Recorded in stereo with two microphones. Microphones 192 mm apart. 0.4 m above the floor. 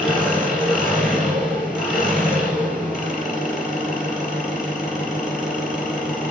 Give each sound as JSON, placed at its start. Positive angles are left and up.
{"t": 0.0, "sound": "an engine running", "side_deg": -5, "distance_m": 3.0}